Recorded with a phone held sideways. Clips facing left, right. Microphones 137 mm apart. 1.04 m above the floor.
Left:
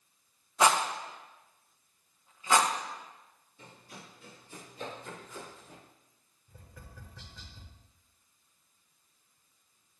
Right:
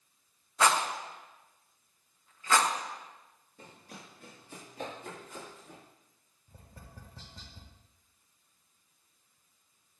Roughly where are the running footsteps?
Right.